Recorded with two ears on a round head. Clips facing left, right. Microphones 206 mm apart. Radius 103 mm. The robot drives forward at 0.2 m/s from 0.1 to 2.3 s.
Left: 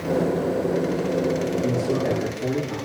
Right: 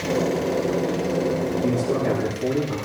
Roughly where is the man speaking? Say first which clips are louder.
Right 1 dB; centre.